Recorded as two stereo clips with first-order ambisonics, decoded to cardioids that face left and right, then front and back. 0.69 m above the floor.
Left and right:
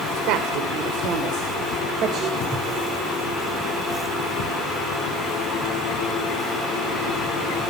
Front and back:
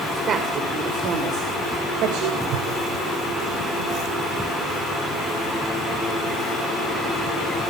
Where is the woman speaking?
115° right, 2.0 m; by 2.4 s 145° right, 2.5 m.